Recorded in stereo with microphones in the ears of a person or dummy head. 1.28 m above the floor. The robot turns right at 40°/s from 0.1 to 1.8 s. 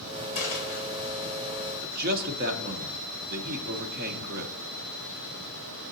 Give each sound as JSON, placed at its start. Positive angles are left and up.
{"t": 0.3, "sound": "a dropped coin", "side_deg": 40, "distance_m": 2.0}
{"t": 1.8, "sound": "a man speaking", "side_deg": -45, "distance_m": 0.6}